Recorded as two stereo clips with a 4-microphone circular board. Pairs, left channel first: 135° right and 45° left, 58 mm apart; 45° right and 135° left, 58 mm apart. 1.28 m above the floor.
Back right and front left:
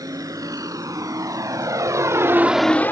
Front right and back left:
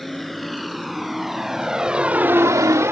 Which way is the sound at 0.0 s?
45° left.